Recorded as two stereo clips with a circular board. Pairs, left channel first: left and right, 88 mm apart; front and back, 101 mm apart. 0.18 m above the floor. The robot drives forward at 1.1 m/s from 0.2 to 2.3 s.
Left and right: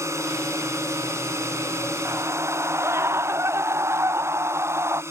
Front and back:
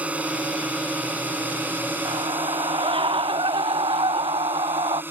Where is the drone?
110° right; by 5.1 s 125° right.